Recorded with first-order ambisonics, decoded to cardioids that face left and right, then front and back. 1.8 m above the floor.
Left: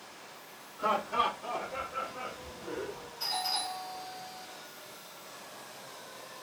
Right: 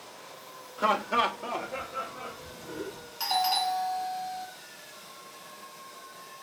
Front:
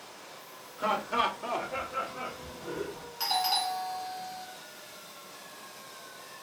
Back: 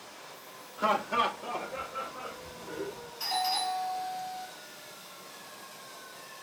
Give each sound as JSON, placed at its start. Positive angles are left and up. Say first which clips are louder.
{"t": 0.8, "sound": "laughter", "louder": "right 4 dB, back 1 dB", "azimuth_deg": -105, "distance_m": 0.7}
{"t": 3.2, "sound": "a doorbell", "louder": "right 7 dB, front 2 dB", "azimuth_deg": -50, "distance_m": 1.0}